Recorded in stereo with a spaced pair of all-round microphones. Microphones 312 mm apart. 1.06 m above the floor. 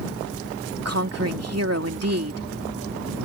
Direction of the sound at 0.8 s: 50° right (ahead or behind).